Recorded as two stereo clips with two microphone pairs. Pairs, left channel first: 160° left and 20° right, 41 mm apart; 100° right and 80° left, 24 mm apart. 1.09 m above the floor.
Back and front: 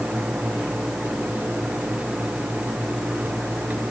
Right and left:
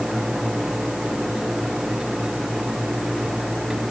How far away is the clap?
No clap in this recording.